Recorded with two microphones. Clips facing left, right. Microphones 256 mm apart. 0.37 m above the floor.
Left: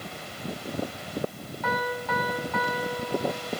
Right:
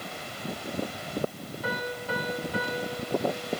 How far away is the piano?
About 3.5 m.